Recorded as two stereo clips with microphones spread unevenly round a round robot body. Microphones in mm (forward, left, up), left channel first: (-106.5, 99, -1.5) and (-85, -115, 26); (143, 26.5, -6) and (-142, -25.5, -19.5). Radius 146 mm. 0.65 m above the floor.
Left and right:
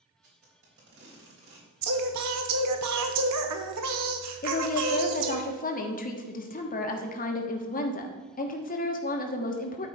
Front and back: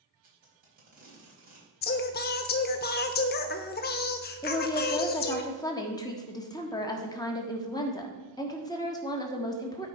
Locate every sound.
0.2 s tape being pulled: 105° right, 4 m
1.8 s singing: 50° right, 0.9 m
4.4 s a woman speaking: 85° left, 1.3 m